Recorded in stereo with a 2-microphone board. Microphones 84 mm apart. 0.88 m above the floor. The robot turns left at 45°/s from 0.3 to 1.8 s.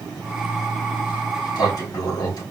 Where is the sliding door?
80° left, 3 m; by 2.4 s 50° left, 3 m.